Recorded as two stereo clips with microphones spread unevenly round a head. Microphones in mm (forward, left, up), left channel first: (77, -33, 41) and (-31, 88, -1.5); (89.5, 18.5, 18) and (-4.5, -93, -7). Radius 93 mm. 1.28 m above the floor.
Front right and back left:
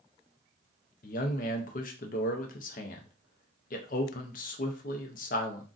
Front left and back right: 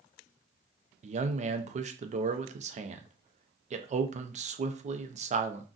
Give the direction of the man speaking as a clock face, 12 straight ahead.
3 o'clock.